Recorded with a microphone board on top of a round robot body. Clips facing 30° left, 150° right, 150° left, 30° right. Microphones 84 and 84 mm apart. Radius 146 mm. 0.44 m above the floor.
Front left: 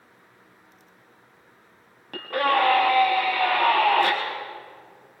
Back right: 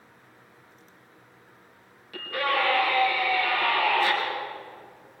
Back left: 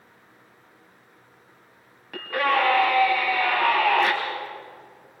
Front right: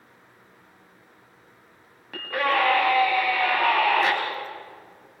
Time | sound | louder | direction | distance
2.1 | a scream | front left 5 dB, back left 1 dB | 60° left | 5 m